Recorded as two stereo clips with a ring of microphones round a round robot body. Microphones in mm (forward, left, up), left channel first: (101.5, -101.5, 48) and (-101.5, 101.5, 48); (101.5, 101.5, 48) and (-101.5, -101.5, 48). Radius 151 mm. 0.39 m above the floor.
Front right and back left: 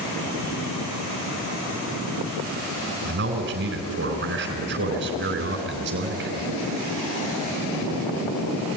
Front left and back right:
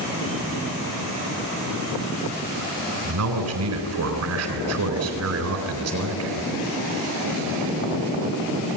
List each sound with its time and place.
3.0 s a man speaking: 170° right, 3.5 m